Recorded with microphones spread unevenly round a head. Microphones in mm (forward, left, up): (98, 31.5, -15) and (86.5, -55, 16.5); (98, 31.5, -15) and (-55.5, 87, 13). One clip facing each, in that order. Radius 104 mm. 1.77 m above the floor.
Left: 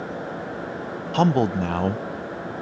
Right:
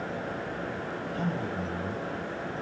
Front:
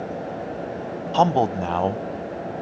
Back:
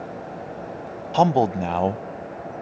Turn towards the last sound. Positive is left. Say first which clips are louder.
# left 14 dB, back 1 dB
turn(degrees=85)